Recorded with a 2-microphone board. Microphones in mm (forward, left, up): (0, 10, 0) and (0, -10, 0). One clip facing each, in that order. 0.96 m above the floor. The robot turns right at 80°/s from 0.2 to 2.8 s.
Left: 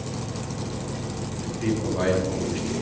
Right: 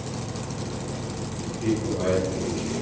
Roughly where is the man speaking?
Ahead.